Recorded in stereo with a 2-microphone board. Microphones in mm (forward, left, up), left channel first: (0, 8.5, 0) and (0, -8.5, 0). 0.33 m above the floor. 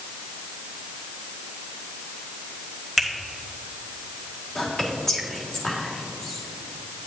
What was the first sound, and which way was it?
A finger snap, 15° left (ahead or behind).